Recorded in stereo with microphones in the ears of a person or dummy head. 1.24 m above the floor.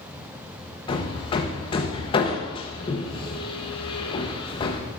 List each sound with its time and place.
0.9 s hammering: 35° left (ahead or behind), 1.0 m